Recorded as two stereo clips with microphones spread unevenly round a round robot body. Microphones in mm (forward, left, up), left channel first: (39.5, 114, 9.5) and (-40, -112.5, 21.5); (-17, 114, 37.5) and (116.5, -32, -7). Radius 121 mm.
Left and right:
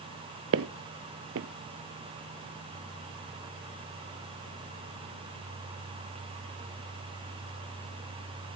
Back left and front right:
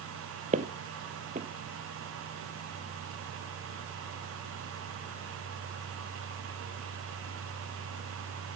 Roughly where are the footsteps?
Right.